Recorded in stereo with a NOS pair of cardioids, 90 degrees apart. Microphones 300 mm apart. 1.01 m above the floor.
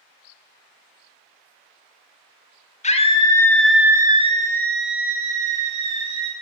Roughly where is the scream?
Ahead left.